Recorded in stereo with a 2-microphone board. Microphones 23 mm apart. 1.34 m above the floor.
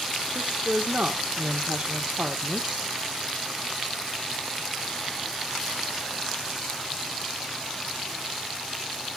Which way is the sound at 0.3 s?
80° right.